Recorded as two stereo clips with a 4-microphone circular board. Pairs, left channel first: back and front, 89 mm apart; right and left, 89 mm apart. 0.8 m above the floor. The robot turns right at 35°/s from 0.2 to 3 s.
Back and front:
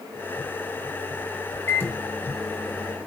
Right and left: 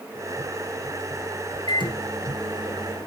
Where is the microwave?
120° right, 2 m; by 3.1 s 75° right, 2 m.